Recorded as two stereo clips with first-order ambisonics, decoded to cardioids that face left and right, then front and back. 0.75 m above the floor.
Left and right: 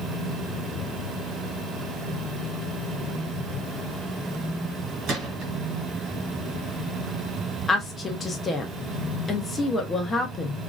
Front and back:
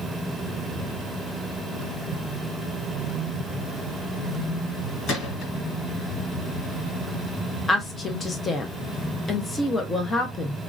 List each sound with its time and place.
5.1 s a gunshot: 50° right, 2 m
7.7 s a woman speaking: 45° left, 0.6 m